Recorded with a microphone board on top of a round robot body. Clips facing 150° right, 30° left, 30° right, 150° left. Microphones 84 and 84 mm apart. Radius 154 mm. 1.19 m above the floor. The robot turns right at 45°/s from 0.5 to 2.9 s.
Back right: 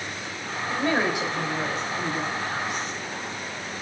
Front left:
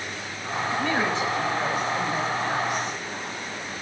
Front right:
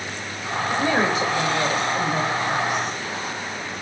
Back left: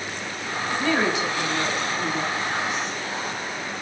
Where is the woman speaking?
95° right, 3.5 m; by 3.0 s 5° left, 3.5 m.